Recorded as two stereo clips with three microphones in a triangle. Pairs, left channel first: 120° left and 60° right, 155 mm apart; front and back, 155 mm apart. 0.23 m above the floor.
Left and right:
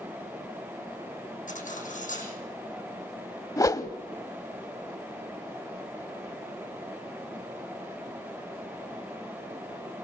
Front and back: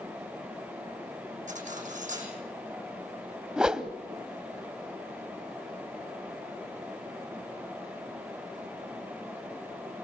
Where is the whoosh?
105° left, 1.0 m.